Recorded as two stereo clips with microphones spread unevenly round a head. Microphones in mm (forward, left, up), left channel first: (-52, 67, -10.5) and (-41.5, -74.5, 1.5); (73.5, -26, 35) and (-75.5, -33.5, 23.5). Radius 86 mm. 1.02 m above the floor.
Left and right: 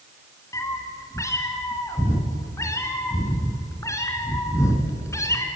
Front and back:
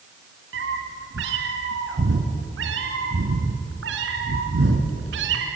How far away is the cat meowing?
About 3 m.